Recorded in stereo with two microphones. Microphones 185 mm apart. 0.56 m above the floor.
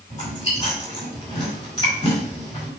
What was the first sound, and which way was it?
Chewing, 30° left (ahead or behind).